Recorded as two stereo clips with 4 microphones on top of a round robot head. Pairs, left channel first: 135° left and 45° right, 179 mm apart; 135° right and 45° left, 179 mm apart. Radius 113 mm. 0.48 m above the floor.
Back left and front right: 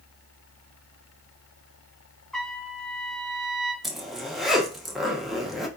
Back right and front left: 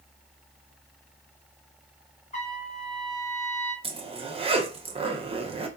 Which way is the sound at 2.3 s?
140° right.